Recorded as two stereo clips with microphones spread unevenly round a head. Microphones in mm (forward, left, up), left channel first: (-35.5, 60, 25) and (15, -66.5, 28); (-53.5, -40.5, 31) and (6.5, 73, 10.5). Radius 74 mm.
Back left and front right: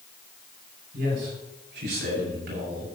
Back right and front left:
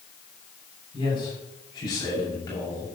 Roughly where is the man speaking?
Ahead right.